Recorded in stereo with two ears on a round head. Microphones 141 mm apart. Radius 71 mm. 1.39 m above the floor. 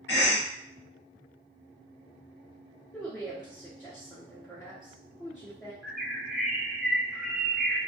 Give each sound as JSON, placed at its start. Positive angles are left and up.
{"t": 0.1, "sound": "a cough", "side_deg": 75, "distance_m": 1.2}
{"t": 2.9, "sound": "a woman speaking", "side_deg": 0, "distance_m": 0.5}
{"t": 5.8, "sound": "a bird", "side_deg": 0, "distance_m": 0.5}